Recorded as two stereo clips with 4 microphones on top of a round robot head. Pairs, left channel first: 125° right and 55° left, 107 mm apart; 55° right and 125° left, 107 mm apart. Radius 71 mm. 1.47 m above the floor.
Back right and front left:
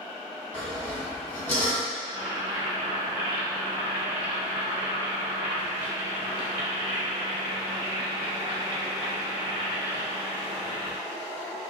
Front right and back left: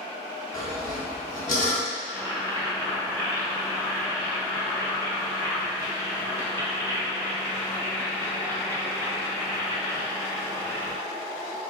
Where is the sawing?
50° right, 1.3 m.